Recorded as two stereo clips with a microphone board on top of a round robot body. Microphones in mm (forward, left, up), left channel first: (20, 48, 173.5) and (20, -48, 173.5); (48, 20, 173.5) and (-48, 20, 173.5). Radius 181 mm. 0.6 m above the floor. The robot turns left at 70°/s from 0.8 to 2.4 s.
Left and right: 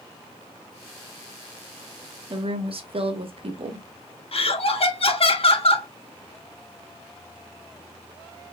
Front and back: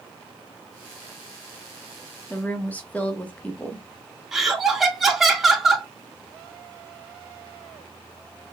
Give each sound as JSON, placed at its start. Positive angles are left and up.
{"t": 2.3, "sound": "a woman speaking", "azimuth_deg": -65, "distance_m": 1.4}
{"t": 4.3, "sound": "laughter", "azimuth_deg": 90, "distance_m": 2.0}